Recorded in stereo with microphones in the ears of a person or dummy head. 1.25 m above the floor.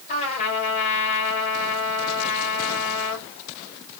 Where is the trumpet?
45° left (ahead or behind), 3.5 m.